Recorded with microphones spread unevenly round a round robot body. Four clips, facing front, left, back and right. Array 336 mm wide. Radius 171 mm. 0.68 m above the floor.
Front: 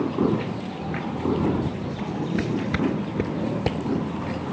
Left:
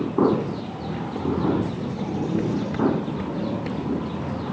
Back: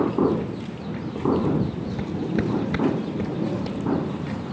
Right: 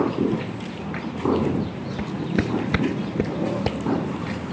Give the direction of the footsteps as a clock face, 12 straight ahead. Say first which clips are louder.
Even, back 1 dB; 4 o'clock.